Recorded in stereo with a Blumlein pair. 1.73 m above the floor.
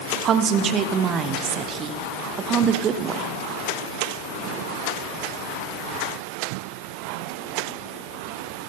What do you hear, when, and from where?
0.2 s a woman speaking: 30° right, 0.8 m